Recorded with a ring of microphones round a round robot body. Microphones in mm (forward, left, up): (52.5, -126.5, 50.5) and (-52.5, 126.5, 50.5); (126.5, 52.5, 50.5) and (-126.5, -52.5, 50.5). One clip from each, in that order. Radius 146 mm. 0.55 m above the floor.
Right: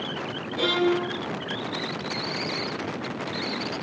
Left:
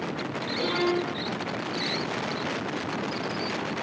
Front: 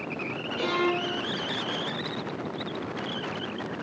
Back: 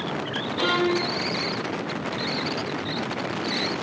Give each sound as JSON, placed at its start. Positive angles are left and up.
{"t": 0.6, "sound": "a violin", "azimuth_deg": -75, "distance_m": 5.5}